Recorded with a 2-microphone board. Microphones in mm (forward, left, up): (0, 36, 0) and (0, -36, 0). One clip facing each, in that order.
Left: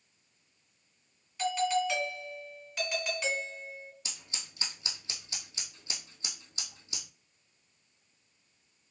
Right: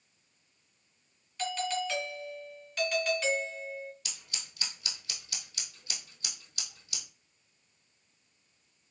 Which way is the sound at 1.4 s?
5° left (ahead or behind).